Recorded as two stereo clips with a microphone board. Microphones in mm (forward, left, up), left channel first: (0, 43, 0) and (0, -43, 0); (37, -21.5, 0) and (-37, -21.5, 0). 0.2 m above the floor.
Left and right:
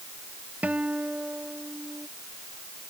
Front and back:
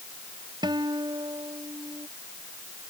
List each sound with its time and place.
0.6 s a guitar: 165° right